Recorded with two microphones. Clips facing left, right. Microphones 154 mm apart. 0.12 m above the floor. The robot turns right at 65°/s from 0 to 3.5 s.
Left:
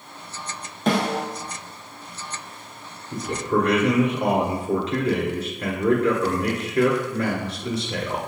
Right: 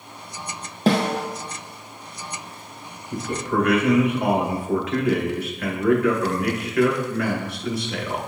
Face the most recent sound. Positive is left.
turn(degrees=30)  # may be behind; listen again after turning